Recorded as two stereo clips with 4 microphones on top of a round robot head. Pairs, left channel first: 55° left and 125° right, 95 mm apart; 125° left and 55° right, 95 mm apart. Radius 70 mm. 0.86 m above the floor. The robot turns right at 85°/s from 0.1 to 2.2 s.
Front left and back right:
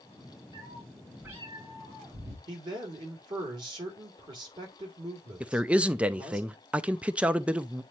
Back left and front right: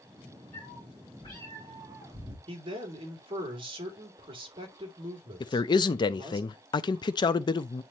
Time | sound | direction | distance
0.5 | a cat meowing | 105° left | 5 m
2.5 | a man speaking | 85° right | 2.5 m
5.4 | a man speaking | 160° left | 0.6 m